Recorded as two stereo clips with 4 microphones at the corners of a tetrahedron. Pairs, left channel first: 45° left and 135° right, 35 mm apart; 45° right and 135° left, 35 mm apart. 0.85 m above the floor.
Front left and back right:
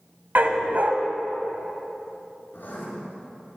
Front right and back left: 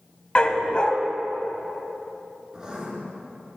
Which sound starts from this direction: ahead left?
Writing, at 2.5 s.